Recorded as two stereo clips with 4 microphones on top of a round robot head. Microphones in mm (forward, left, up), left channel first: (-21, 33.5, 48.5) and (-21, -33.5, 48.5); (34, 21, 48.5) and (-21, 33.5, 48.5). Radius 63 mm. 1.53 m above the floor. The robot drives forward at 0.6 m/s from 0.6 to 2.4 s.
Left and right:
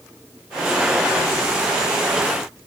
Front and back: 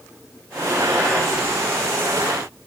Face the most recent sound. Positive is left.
No sound to turn to.